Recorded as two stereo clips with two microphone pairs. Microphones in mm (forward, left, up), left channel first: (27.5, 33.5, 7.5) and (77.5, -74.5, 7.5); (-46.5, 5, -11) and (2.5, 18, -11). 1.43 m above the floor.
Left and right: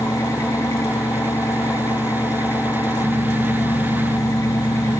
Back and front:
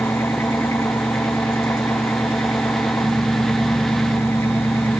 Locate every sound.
0.0 s an engine running: straight behind, 1.6 m